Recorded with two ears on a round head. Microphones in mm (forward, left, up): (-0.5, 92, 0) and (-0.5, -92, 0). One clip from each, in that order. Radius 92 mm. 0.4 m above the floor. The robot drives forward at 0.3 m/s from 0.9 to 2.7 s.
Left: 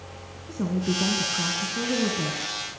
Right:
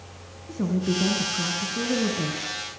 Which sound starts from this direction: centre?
A woman speaking, at 0.5 s.